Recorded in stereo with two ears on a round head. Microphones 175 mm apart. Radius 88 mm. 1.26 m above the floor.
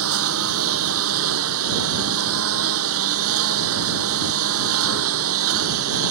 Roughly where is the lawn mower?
Right.